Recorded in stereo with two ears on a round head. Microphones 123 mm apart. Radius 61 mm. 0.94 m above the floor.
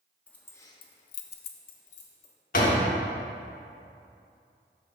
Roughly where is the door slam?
Left.